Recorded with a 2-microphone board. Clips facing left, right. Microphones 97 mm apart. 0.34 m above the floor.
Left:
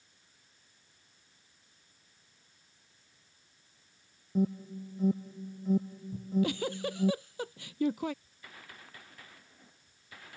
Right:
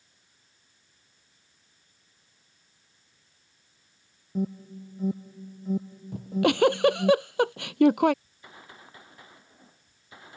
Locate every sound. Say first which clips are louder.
4.3 s an alarm: even; centre (ahead or behind)
6.1 s a giggle: right 6 dB; 75° right (ahead or behind)
8.2 s a gunshot: right 3 dB; 25° right (ahead or behind)